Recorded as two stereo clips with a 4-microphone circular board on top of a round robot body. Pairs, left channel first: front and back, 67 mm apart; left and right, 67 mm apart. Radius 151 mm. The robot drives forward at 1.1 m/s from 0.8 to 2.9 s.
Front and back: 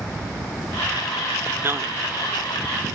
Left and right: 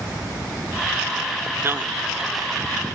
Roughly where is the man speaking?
Behind right.